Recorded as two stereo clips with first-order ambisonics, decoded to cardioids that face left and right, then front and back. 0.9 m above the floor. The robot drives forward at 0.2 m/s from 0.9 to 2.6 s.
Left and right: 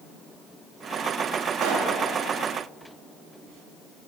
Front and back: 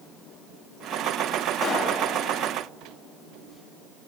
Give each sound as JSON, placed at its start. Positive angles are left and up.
{"t": 1.6, "sound": "a pop", "azimuth_deg": -80, "distance_m": 0.8}